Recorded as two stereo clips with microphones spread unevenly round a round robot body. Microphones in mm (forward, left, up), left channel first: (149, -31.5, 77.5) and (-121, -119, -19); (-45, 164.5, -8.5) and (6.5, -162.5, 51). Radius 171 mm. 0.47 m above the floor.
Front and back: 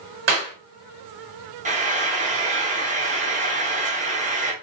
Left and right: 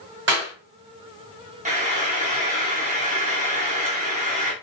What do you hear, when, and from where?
0.3 s a clap: 140° right, 1.7 m
1.6 s frying: 155° right, 0.8 m